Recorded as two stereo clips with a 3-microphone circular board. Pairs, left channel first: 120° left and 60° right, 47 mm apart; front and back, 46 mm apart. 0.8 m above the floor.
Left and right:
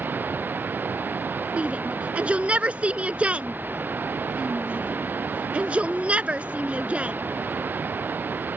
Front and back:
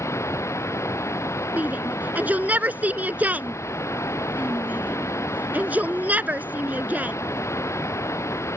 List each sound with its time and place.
0.0 s running water: 10° right
1.6 s a shout: 125° right